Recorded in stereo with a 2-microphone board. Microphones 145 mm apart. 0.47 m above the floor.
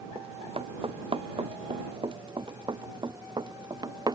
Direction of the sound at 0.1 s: 40° right (ahead or behind).